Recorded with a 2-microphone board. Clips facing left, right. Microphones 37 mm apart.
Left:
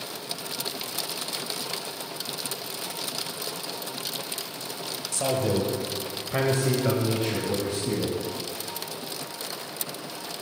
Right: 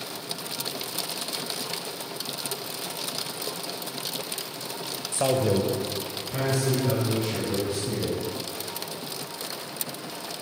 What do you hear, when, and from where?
5.1 s a man speaking: 25° right (ahead or behind), 1.0 m; by 8.2 s 70° left (ahead or behind), 2.5 m